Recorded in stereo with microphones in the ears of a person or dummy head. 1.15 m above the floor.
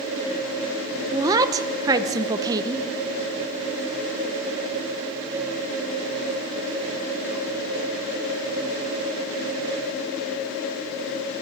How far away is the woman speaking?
About 0.8 m.